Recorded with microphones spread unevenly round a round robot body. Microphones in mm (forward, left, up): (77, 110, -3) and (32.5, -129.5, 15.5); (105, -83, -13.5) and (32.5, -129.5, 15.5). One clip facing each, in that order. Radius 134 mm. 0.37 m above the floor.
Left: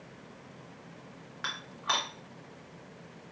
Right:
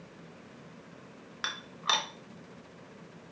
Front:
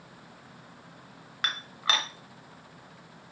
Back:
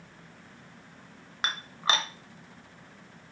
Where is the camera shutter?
I don't hear a camera shutter.